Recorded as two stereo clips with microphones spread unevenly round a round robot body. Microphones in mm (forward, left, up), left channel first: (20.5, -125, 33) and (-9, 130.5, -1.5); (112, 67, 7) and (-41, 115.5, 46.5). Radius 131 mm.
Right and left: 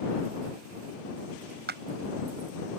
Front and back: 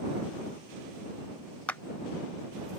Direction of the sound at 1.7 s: 55° left.